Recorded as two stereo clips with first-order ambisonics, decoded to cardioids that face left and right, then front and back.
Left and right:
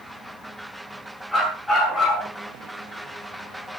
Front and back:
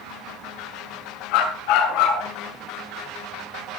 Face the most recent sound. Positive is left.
turn(degrees=5)